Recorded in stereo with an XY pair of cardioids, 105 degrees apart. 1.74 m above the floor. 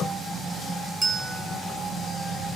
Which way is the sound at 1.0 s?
30° right.